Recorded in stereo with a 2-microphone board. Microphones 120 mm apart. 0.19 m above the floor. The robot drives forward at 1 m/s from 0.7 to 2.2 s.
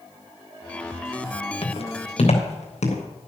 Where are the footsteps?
60° left (ahead or behind), 2.5 m; by 3.0 s 85° left, 4 m.